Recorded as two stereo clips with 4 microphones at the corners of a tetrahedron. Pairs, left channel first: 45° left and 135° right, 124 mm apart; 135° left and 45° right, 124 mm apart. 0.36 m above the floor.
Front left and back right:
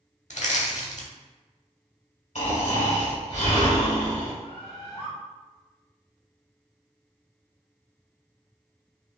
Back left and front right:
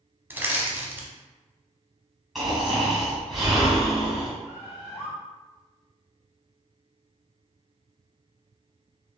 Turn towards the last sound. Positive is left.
turn(degrees=70)